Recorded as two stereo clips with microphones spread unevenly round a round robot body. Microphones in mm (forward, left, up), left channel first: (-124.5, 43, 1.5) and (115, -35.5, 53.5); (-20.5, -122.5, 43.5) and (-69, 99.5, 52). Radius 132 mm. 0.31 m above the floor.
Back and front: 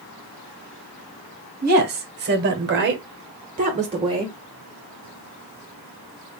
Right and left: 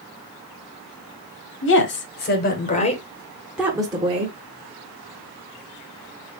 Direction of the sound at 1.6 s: 70° right.